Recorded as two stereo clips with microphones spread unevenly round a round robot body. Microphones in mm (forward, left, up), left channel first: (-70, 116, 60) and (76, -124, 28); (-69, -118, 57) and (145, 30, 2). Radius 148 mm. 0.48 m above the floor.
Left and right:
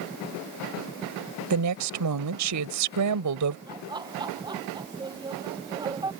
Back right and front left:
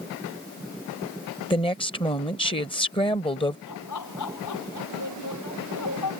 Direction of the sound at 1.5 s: 70° right.